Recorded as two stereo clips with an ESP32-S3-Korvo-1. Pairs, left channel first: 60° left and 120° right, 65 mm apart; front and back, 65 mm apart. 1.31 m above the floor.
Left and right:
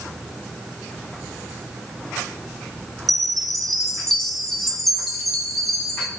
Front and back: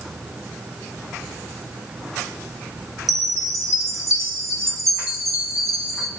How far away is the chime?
About 2.5 m.